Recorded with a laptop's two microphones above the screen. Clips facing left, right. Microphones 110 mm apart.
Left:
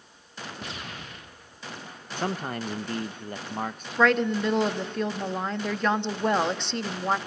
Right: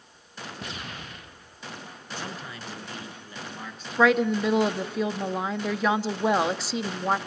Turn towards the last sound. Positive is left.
turn(degrees=-5)  # may be behind; listen again after turning